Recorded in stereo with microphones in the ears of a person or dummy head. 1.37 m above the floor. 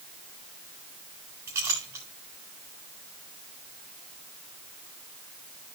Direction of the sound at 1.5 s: 15° right (ahead or behind).